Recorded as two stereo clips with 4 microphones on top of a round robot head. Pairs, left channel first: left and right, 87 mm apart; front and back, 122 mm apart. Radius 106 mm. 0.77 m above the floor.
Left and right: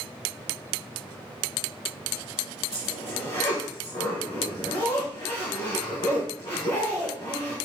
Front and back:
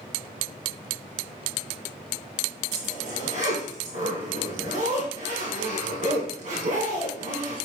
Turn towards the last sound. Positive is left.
turn(degrees=155)